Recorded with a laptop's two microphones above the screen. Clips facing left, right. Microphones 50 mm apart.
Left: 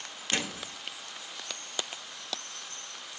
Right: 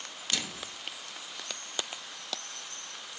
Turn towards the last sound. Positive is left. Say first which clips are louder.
# left 4 dB
turn(degrees=35)  # may be behind; listen again after turning